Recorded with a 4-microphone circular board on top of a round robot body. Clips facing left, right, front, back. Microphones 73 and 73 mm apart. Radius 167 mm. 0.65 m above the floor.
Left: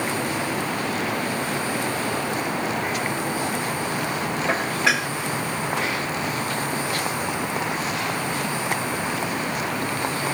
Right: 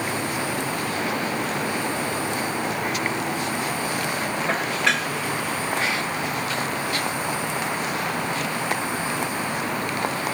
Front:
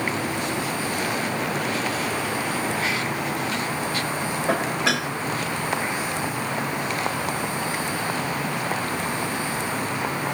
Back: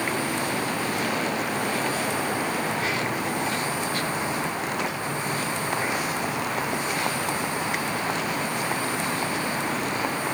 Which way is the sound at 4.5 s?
5° left.